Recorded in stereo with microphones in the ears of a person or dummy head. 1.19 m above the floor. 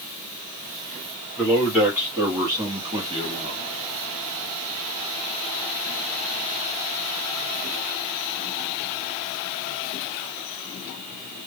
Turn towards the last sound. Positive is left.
turn(degrees=-35)  # may be behind; listen again after turning